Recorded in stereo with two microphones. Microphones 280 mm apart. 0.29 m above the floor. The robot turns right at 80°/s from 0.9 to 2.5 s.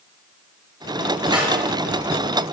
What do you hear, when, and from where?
1.3 s a snare drum: 15° right (ahead or behind), 2.5 m; by 1.6 s 35° right (ahead or behind), 2.5 m